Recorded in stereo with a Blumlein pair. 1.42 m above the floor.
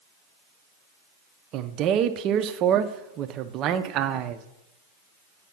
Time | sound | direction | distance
1.5 | a man speaking | 35° right | 0.5 m